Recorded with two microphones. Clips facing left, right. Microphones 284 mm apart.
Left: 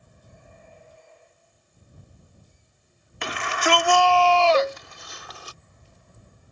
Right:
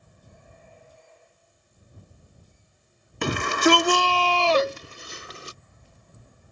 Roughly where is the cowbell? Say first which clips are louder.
Left 1 dB; centre.